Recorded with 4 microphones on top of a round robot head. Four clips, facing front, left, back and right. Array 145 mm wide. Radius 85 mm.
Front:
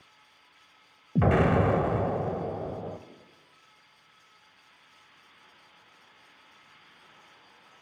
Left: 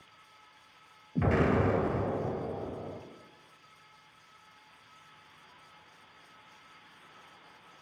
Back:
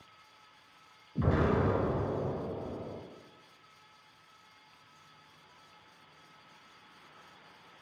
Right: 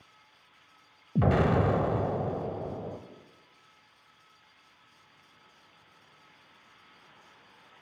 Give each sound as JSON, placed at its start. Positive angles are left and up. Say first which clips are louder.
{"t": 1.1, "sound": "an explosion", "louder": "right 2 dB, front 6 dB", "azimuth_deg": -30, "distance_m": 0.5}